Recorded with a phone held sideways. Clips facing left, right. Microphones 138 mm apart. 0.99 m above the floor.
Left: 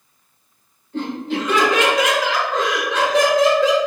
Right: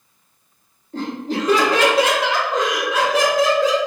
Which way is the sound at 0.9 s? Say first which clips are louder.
Left 1 dB; 40° right (ahead or behind).